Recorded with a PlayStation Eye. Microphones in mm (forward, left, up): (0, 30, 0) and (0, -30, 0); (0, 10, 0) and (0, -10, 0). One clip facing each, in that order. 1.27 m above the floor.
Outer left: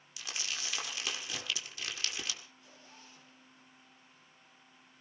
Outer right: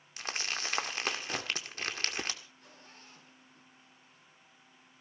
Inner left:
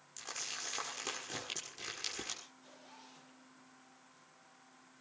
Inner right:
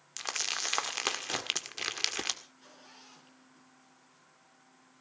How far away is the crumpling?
About 1.6 m.